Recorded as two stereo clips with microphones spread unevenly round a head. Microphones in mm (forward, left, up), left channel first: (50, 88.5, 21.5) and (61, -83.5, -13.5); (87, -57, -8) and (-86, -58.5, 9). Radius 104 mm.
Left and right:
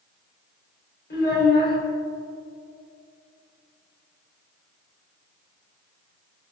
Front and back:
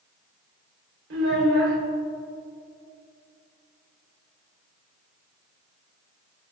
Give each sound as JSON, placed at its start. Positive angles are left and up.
{"t": 1.1, "sound": "a child speaking", "azimuth_deg": 140, "distance_m": 3.0}